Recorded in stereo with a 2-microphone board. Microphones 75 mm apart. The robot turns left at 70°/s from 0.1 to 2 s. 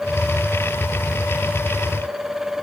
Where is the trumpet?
No trumpet in this recording.